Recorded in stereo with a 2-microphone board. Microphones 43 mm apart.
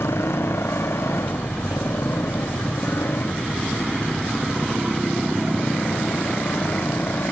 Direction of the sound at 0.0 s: 85° left.